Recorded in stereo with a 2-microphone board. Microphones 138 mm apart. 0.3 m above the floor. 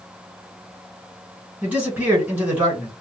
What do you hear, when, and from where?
1.6 s a man speaking: 10° right (ahead or behind), 1.7 m